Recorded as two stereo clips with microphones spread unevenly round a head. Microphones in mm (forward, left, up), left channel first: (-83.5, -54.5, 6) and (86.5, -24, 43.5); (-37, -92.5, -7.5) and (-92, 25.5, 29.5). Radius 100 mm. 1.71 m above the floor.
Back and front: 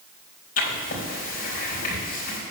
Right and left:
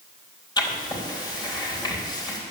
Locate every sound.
0.6 s writing: 125° right, 4 m